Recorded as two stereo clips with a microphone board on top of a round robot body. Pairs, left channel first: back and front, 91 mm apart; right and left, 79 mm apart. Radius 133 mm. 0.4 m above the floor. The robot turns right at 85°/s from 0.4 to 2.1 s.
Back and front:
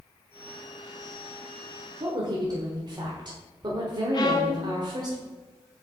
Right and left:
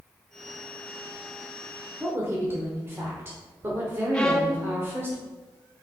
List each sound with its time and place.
2.0 s a woman speaking: 25° left, 1.4 m; by 5.1 s 30° left, 1.4 m
4.1 s a violin: 170° right, 1.2 m